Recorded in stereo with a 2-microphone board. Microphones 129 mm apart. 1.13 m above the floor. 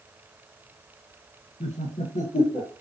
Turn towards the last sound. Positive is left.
turn(degrees=80)